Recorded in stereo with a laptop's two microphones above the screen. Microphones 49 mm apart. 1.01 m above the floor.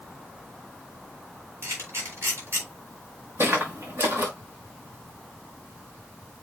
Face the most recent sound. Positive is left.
turn(degrees=-60)  # may be behind; listen again after turning